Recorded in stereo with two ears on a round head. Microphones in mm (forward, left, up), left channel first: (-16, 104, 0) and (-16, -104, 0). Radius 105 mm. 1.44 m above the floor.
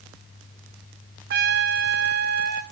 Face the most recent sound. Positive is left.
turn(degrees=-45)  # may be behind; listen again after turning